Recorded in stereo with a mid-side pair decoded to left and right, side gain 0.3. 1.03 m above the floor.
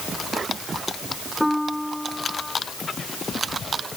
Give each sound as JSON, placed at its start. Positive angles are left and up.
{"t": 1.4, "sound": "a piano", "azimuth_deg": 5}